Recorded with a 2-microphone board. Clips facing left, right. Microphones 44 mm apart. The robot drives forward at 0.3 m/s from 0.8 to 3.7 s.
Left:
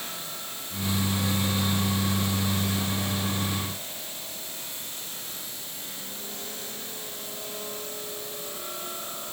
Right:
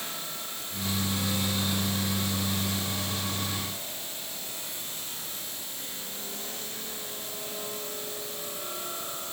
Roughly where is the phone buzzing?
I don't hear a phone buzzing.